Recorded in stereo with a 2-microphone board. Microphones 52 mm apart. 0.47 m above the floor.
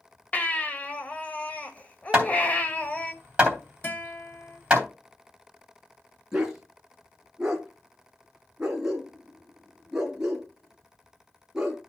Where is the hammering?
20° right (ahead or behind), 3 m.